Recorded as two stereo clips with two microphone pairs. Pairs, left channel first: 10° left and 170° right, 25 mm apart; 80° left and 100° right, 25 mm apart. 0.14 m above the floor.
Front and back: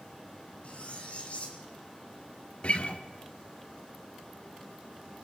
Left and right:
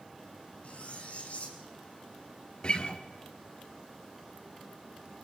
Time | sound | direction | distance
0.6 | cutlery clinking | 45° left | 5 m
2.6 | a guitar | 40° left | 1.9 m